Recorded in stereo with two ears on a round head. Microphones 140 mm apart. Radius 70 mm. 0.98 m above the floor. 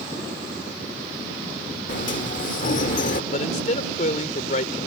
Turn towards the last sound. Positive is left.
turn(degrees=50)  # may be behind; listen again after turning